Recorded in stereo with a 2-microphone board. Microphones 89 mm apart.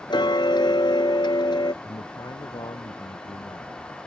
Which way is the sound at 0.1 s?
60° left (ahead or behind).